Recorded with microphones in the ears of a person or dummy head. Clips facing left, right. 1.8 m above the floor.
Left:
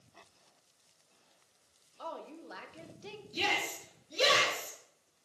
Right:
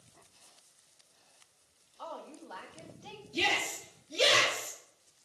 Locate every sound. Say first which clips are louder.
2.0 s a woman speaking: left 1 dB; 25° left (ahead or behind), 1.1 m
3.3 s a shout: right 2 dB; 20° left (ahead or behind), 4 m